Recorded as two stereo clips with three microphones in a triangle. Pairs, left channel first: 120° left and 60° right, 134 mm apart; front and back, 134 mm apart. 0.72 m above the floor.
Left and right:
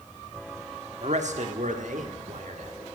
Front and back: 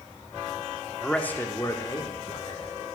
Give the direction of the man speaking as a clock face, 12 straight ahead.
3 o'clock.